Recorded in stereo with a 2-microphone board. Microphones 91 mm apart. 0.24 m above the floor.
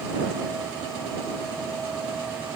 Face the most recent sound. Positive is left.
No sound to turn to.